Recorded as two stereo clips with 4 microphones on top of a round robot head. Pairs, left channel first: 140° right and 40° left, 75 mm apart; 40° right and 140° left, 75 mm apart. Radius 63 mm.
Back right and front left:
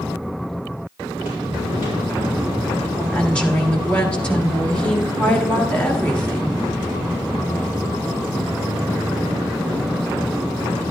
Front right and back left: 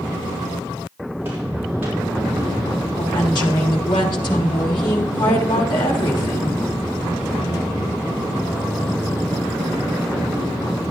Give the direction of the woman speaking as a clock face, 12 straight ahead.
2 o'clock.